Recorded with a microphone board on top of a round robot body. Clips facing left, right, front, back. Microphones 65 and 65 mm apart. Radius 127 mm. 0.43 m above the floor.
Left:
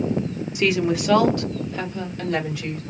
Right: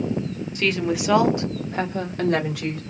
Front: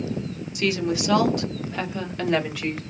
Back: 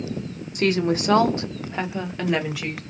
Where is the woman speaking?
160° left, 1.1 m; by 2.8 s 90° right, 1.7 m.